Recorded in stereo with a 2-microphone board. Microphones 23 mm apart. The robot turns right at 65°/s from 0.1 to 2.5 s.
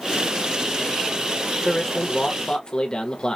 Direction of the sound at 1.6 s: 10° left.